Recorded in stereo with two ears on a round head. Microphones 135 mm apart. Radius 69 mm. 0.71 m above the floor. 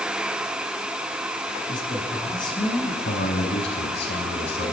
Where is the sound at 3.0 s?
80° left, 6 m.